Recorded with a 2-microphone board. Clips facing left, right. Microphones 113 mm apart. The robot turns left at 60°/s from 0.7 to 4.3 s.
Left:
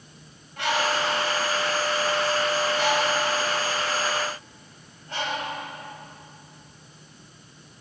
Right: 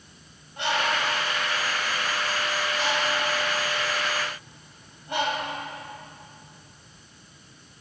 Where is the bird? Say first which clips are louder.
Left 1 dB; 20° right (ahead or behind), 2.5 m; by 5.5 s 15° right (ahead or behind), 2.5 m.